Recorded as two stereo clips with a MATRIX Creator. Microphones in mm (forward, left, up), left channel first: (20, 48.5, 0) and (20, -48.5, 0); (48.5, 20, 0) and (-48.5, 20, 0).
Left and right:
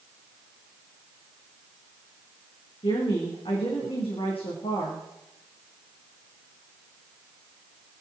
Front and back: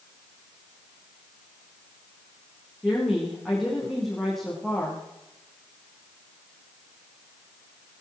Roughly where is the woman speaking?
Left.